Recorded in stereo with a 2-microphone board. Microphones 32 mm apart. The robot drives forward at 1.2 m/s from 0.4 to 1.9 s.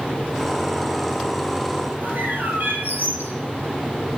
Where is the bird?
65° right (ahead or behind), 5.5 m.